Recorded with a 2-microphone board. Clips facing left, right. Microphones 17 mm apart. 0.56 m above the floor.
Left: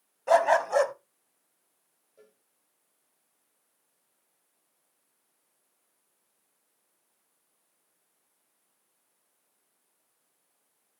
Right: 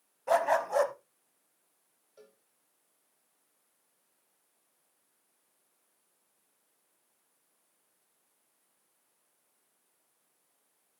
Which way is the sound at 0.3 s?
35° left (ahead or behind).